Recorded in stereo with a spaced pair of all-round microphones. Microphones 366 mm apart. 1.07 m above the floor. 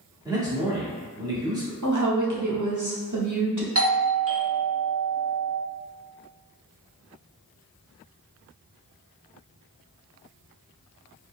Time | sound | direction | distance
0.2 | a man speaking | 10° right (ahead or behind) | 1.7 m
1.8 | a woman speaking | 55° right (ahead or behind) | 1.0 m
3.8 | a doorbell | 40° right (ahead or behind) | 0.7 m